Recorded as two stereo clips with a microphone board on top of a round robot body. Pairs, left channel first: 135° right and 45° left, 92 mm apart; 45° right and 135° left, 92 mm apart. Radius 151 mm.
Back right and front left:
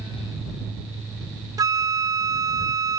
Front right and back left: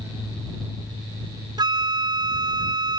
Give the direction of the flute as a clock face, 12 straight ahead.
9 o'clock.